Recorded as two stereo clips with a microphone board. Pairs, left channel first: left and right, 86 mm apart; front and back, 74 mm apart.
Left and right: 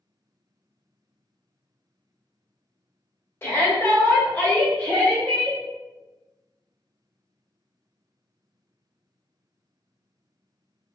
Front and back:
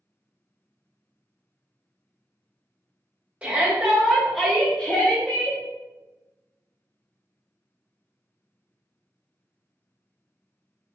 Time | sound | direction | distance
3.4 | a shout | 120° left | 1.5 m